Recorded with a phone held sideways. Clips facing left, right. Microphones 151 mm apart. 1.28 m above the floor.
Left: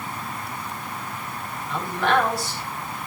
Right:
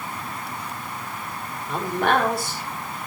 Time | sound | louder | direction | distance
1.7 | a man speaking | right 1 dB | 55° right (ahead or behind) | 5.5 m